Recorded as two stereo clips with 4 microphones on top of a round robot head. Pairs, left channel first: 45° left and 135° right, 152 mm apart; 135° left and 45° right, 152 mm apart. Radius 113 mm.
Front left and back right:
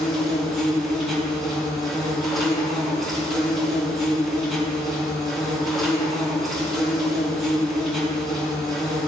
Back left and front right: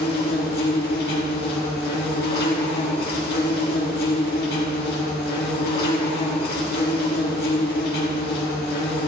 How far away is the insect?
About 3.5 m.